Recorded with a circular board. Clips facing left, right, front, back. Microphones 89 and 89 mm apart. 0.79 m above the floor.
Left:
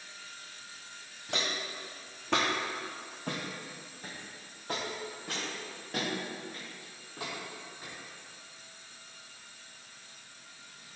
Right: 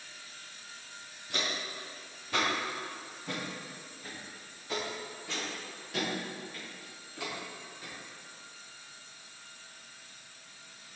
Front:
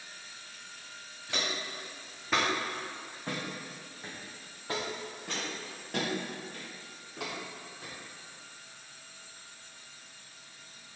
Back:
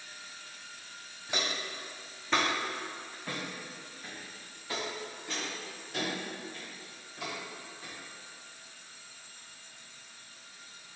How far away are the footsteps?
About 2.5 m.